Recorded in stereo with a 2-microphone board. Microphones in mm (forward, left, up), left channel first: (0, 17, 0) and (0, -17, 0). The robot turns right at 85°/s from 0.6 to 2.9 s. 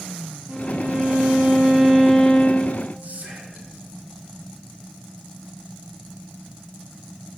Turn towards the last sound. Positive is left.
turn(degrees=-50)  # may be behind; listen again after turning